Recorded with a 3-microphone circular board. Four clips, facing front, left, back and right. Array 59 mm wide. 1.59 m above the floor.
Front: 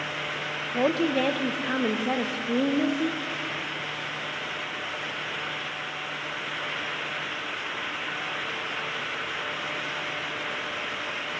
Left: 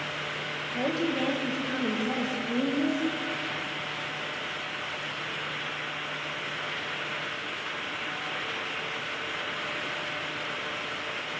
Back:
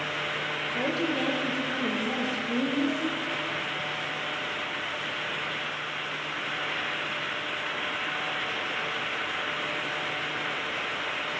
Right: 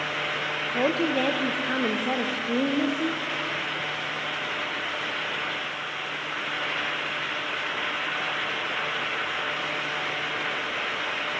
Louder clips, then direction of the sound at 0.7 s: Right 4 dB, front 6 dB; 40° right.